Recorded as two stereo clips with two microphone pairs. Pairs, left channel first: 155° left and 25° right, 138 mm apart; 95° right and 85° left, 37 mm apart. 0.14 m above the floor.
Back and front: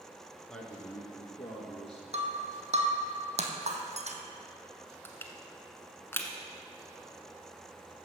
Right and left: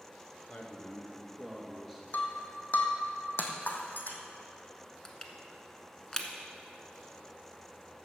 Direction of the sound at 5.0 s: 150° right.